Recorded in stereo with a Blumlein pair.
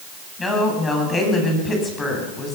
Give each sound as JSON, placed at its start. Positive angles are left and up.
{"t": 0.4, "sound": "a woman speaking", "azimuth_deg": 15, "distance_m": 9.0}